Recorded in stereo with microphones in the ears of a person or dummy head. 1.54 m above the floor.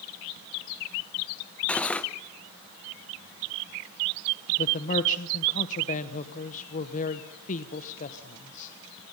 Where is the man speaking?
45° left (ahead or behind), 1.2 m.